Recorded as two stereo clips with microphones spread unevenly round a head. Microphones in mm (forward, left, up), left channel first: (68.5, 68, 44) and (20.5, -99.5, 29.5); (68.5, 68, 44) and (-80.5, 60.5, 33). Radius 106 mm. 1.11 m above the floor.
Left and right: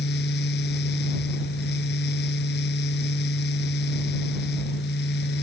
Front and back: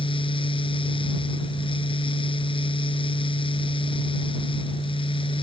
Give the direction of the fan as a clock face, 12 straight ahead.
10 o'clock.